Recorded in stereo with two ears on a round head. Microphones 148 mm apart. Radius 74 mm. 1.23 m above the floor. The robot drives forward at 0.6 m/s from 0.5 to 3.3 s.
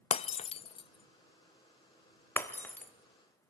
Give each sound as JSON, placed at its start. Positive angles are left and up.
{"t": 0.1, "sound": "breaking glass", "side_deg": 35, "distance_m": 0.6}